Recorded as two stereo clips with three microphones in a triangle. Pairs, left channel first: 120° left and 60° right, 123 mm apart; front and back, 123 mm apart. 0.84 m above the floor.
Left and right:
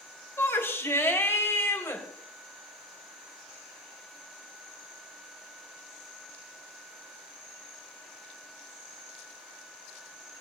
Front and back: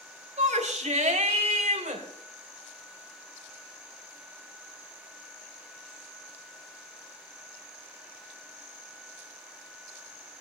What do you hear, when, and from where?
0.4 s a shout: 170° right, 3 m